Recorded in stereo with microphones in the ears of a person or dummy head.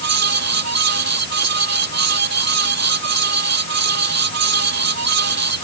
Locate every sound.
0.0 s a fan: 70° right (ahead or behind)